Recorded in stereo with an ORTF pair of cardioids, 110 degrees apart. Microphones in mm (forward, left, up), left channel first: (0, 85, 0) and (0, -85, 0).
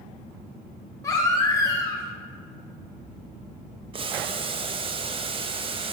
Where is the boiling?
30° right, 0.7 m.